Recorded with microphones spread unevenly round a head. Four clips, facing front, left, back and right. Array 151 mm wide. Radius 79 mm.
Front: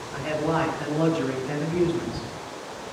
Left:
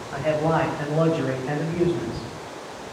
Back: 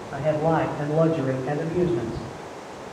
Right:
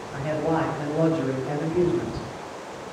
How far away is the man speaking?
About 5.5 m.